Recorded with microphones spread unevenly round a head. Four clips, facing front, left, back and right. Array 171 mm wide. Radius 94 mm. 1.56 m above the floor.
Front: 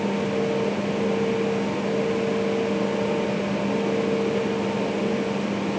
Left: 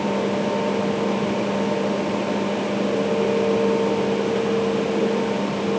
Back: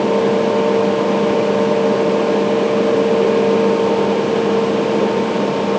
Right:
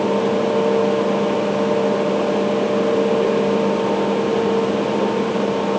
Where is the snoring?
I don't hear snoring.